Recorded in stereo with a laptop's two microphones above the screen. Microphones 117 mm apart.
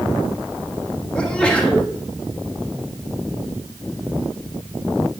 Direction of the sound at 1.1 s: 10° left (ahead or behind).